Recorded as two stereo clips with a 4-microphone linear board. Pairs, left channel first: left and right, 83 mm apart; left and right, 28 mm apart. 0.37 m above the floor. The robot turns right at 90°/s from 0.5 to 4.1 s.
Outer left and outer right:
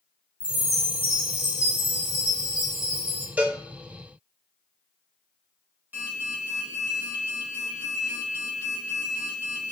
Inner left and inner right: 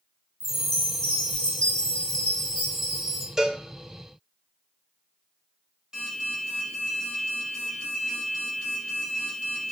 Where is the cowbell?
20° right (ahead or behind), 0.6 m; by 3.6 s 25° right (ahead or behind), 0.6 m.